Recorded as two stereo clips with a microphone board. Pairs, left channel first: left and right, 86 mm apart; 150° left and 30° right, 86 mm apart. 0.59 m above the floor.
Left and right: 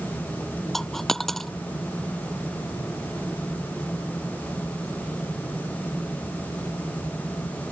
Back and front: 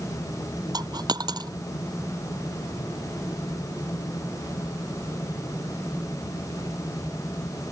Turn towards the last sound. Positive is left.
turn(degrees=0)